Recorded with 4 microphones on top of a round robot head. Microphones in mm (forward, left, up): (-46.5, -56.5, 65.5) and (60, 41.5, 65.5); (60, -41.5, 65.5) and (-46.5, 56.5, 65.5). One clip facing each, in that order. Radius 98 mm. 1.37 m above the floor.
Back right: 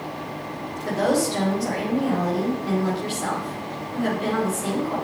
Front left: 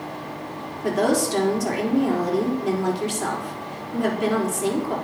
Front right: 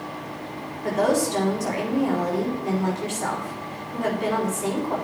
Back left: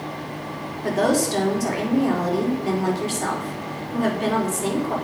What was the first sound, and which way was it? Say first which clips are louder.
A woman speaking: front left 1 dB, back left 1 dB; 85° left.